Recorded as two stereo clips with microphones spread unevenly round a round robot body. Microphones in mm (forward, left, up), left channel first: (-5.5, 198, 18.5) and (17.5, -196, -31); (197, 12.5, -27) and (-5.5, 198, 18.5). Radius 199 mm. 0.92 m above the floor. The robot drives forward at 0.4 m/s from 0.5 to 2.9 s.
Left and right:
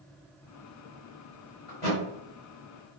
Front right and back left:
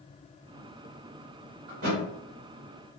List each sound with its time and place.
1.7 s a thud: 155° left, 1.3 m